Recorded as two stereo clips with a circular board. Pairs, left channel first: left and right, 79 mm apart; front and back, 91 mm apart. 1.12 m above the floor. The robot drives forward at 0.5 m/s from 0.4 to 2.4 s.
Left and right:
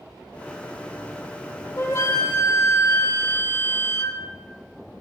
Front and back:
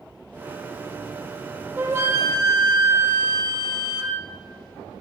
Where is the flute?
125° left, 1.2 m; by 4.2 s 135° left, 1.4 m.